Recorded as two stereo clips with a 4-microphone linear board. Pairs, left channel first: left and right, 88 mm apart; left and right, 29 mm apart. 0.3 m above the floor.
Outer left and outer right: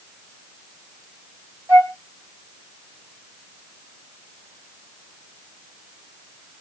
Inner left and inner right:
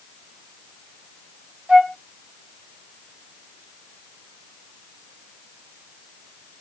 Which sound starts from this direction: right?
A flute, at 1.7 s.